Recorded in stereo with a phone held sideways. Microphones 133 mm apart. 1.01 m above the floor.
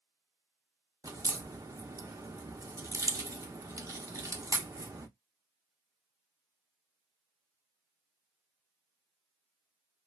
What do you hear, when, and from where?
1.0 s a crack: 25° right (ahead or behind), 0.6 m